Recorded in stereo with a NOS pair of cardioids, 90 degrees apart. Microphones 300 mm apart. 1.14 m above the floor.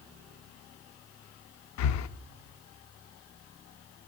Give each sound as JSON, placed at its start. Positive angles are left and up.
{"t": 1.8, "sound": "breathing", "azimuth_deg": 65, "distance_m": 0.5}